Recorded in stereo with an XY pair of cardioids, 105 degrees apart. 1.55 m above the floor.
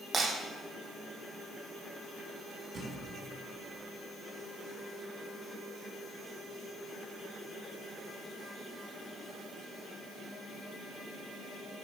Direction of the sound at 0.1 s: 45° right.